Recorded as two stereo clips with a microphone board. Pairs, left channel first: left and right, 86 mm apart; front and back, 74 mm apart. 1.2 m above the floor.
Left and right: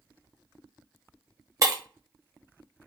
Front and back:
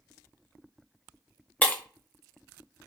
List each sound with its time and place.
1.6 s breaking glass: 60° right, 0.8 m